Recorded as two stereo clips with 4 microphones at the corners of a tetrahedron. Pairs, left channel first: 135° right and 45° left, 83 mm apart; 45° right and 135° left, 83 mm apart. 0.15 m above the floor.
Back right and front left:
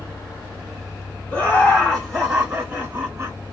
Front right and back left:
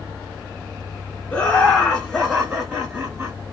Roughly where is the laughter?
Right.